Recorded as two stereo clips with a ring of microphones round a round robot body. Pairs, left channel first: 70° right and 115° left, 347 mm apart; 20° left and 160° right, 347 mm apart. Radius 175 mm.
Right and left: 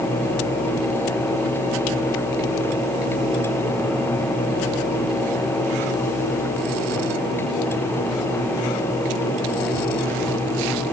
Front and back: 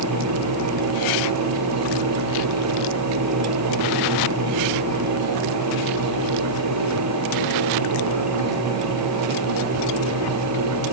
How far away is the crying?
I don't hear crying.